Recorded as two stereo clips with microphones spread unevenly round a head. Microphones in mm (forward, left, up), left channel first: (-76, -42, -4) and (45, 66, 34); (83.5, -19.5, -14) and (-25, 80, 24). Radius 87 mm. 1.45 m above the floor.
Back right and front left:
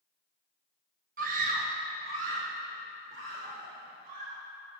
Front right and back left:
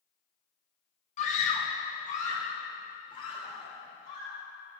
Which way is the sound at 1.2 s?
Straight ahead.